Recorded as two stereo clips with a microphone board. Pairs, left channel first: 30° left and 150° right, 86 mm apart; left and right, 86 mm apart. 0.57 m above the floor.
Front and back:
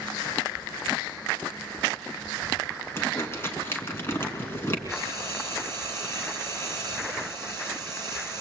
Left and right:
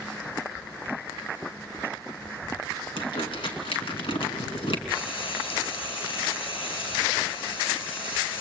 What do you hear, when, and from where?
3.0 s crumpling: 90° left, 5 m
4.9 s frying: 90° left, 7.5 m